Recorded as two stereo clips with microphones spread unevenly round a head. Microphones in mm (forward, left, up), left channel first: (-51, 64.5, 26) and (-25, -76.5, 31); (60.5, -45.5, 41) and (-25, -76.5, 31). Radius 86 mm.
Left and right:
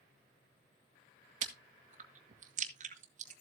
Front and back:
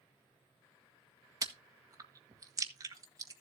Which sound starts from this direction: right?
Chewing, at 1.4 s.